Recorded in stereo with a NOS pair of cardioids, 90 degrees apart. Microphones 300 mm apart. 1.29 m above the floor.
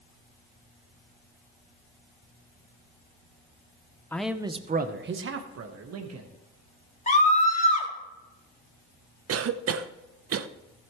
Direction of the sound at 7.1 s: 25° left.